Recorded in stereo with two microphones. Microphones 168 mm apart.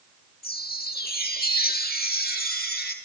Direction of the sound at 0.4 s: 70° left (ahead or behind).